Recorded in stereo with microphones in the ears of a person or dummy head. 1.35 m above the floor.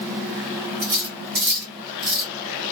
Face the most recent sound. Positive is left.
turn(degrees=-50)  # may be behind; listen again after turning